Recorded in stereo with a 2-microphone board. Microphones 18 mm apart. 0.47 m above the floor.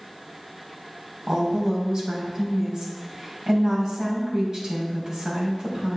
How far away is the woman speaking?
About 3.5 m.